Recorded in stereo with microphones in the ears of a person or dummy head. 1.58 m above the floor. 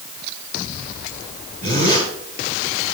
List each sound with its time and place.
1.6 s a zipper: 45° right (ahead or behind), 4.5 m